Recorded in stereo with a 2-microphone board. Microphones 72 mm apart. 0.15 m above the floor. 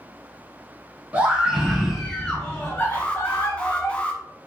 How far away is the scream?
About 1.5 m.